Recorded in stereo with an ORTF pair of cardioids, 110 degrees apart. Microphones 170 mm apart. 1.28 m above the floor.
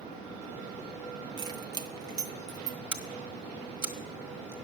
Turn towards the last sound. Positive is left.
turn(degrees=-25)